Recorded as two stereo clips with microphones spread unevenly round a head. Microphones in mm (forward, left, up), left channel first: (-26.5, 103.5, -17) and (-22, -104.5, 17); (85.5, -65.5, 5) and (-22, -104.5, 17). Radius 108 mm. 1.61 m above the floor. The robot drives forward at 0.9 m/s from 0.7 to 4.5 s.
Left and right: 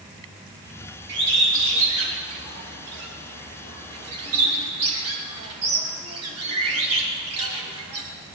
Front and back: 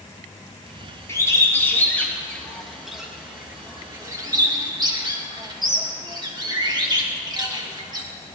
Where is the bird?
45° right, 3.5 m; by 8.0 s 105° right, 2.5 m.